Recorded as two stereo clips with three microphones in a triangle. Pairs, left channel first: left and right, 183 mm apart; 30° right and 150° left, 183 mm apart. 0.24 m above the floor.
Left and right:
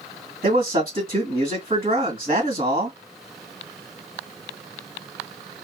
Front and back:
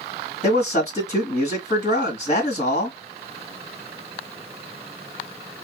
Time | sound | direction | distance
0.4 | a man speaking | 65° right | 1.8 m